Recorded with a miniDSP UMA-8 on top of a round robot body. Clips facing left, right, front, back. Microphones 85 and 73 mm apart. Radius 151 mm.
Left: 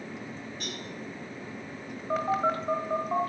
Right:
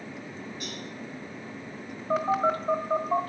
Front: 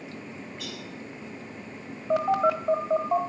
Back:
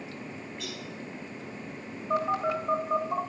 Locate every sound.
0.6 s a cowbell: 90° left, 8.5 m
2.1 s a phone buzzing: straight ahead, 1.3 m